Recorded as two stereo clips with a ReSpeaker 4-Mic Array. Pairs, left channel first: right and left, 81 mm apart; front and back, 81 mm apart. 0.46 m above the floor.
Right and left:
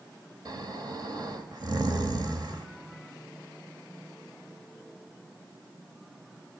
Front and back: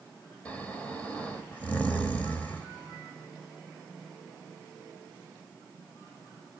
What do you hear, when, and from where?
0.5 s snoring: 70° left, 1.7 m